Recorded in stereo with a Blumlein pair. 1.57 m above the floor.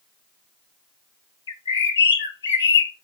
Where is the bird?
65° left, 1.0 m.